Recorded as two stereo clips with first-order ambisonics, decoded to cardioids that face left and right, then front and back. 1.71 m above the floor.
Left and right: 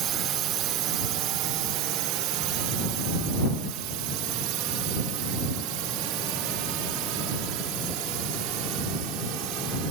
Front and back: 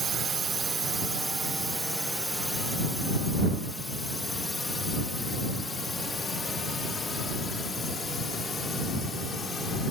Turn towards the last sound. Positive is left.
turn(degrees=-70)